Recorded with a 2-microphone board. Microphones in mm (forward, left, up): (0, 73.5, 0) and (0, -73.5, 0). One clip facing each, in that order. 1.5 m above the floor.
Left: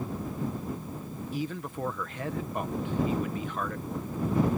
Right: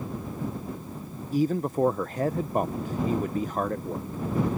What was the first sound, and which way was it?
A man speaking, 40° right (ahead or behind).